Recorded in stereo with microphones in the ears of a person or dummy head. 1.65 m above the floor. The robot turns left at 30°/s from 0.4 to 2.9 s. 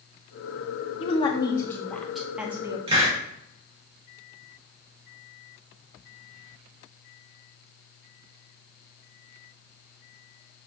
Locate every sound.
1.0 s a woman speaking: 30° left, 0.9 m; by 2.8 s 20° right, 0.9 m
2.9 s a hiss: 25° right (ahead or behind), 1.2 m